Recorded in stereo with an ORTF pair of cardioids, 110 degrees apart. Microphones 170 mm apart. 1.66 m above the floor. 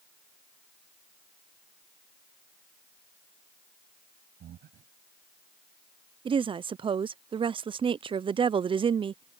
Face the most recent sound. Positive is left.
turn(degrees=-30)